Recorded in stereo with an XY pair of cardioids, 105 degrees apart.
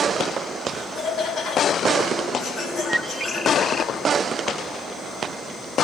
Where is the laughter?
65° left, 9.5 m.